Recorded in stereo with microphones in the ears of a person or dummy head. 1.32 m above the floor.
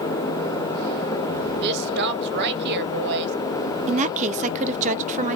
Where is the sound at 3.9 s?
40° right (ahead or behind), 0.6 m.